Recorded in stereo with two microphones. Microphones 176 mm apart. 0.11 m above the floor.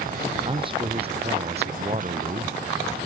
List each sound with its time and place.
0.5 s a man speaking: 25° right (ahead or behind); by 2.6 s 40° right (ahead or behind)